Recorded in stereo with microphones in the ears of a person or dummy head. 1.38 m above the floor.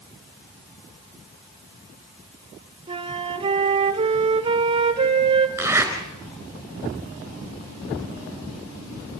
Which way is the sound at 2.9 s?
30° right (ahead or behind).